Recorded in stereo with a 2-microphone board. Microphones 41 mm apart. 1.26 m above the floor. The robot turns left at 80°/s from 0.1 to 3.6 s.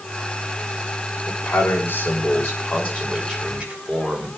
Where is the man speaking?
165° left, 6.5 m; by 4.3 s 25° right, 6.5 m.